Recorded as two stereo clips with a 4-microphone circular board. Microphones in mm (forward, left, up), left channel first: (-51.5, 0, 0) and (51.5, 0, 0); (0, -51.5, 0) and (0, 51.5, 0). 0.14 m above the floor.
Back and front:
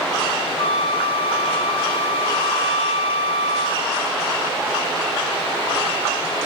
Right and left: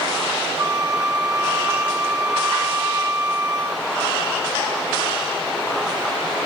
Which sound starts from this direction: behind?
A flute, at 0.6 s.